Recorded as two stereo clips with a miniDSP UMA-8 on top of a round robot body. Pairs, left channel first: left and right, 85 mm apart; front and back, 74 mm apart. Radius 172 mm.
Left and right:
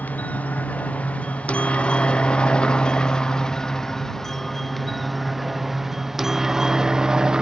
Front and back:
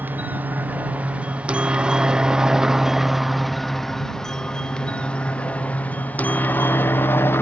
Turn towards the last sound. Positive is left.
turn(degrees=-15)